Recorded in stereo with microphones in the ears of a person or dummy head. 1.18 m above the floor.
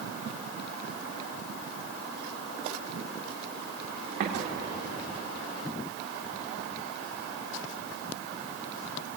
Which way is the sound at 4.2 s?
45° right (ahead or behind).